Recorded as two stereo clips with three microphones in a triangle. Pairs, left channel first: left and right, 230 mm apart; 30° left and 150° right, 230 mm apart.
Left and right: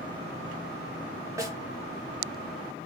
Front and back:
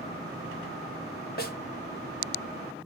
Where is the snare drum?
15° right, 1.2 m.